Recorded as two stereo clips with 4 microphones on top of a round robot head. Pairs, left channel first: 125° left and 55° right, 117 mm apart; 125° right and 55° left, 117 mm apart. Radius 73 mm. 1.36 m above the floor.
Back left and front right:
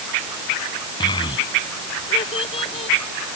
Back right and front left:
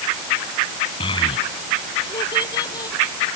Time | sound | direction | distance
1.0 | a child speaking | 175° right | ?